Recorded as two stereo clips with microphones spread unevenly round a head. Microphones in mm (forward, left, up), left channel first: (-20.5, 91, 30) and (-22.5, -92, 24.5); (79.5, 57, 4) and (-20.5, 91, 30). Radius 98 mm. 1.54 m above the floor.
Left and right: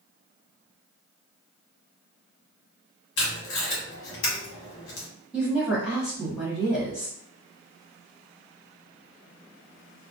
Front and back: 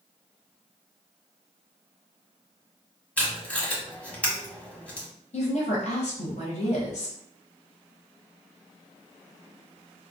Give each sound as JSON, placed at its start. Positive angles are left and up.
{"t": 3.2, "sound": "tape being pulled", "azimuth_deg": 60, "distance_m": 1.4}
{"t": 5.3, "sound": "a woman speaking", "azimuth_deg": -5, "distance_m": 1.3}